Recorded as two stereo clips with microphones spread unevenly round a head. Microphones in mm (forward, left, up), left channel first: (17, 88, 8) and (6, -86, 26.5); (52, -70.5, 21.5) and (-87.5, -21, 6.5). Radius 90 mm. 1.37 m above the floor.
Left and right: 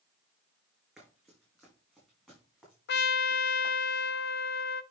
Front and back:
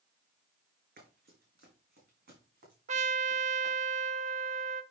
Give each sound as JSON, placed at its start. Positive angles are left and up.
{"t": 1.0, "sound": "running footsteps", "azimuth_deg": 180, "distance_m": 5.0}
{"t": 2.9, "sound": "a trumpet", "azimuth_deg": 115, "distance_m": 0.6}